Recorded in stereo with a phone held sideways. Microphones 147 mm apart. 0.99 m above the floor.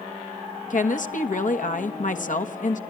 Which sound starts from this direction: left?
A woman speaking, at 0.7 s.